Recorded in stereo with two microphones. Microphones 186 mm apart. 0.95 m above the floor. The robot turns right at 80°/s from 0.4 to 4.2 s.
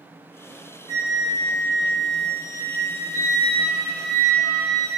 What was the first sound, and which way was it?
A flute, 30° left.